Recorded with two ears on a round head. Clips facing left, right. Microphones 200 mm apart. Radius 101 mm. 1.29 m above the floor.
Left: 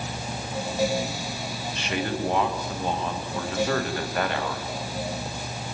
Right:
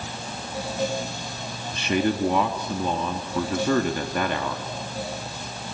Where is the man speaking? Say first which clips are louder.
Right 6 dB; 85° right, 2.5 m.